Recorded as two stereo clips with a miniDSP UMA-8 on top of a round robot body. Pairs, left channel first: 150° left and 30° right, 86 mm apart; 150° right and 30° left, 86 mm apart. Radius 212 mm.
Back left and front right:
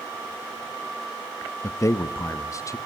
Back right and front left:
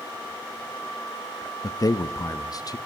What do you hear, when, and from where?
1.6 s a man speaking: 175° right, 1.0 m